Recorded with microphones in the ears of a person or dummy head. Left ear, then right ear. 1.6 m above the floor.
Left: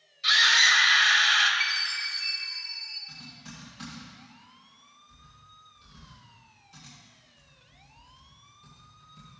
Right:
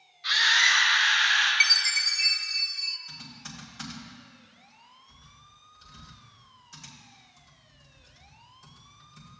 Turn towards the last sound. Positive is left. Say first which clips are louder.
# right 2 dB
turn(degrees=-50)  # may be behind; listen again after turning